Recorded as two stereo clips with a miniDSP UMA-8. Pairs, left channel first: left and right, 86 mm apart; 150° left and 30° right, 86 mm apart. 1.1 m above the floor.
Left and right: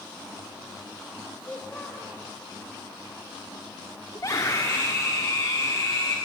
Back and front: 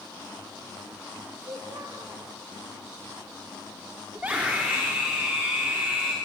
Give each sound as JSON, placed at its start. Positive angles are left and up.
{"t": 1.4, "sound": "a child speaking", "azimuth_deg": 15, "distance_m": 3.5}
{"t": 4.2, "sound": "a scream", "azimuth_deg": 45, "distance_m": 3.0}